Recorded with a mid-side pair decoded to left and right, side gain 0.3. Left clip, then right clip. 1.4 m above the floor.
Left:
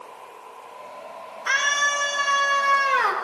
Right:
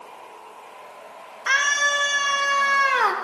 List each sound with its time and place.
1.5 s a scream: 45° right, 6 m; by 3.1 s 70° right, 4 m